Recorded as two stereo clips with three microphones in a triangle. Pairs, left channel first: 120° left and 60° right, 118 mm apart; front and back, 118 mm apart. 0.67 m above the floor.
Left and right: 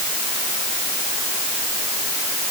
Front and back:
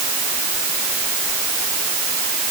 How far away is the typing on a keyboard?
No typing on a keyboard in this recording.